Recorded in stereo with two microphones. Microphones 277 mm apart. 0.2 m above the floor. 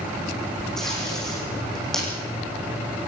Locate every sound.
0.8 s tape being pulled: centre (ahead or behind), 9 m